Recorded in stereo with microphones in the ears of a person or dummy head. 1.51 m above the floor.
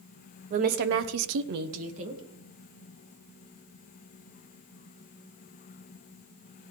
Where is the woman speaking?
40° right (ahead or behind), 1.1 m; by 2.2 s 35° right (ahead or behind), 1.6 m.